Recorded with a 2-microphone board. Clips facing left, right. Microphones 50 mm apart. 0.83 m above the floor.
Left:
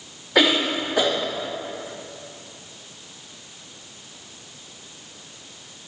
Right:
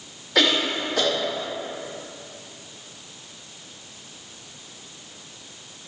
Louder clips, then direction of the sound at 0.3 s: Left 2 dB; 15° left (ahead or behind).